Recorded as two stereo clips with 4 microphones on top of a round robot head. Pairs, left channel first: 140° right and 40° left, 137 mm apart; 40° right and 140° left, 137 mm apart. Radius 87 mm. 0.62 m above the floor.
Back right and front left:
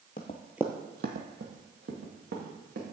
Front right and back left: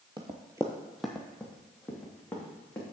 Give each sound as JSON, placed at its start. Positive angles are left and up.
{"t": 0.2, "sound": "running footsteps", "azimuth_deg": -160, "distance_m": 0.8}